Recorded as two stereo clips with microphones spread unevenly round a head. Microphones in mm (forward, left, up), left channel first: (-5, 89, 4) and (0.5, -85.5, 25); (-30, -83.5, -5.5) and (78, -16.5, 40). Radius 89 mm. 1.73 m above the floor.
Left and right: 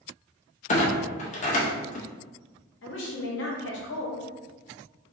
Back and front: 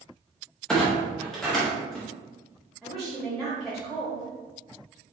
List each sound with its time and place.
0.7 s a clunk: 90° left, 0.6 m
2.8 s a woman speaking: 110° left, 1.1 m